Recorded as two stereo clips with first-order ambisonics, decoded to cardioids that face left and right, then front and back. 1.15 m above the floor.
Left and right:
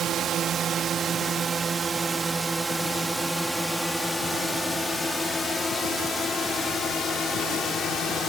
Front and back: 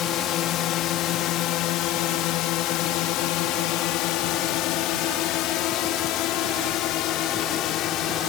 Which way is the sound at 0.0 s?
40° right.